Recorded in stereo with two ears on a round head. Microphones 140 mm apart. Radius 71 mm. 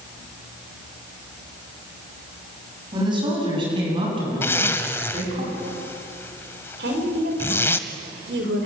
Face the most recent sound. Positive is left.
turn(degrees=-80)